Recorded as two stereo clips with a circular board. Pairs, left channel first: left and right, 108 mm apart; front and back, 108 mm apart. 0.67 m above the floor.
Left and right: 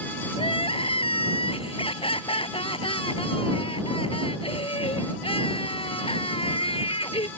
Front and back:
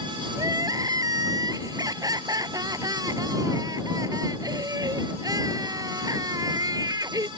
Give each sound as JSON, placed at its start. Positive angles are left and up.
{"t": 0.4, "sound": "crying", "azimuth_deg": 125}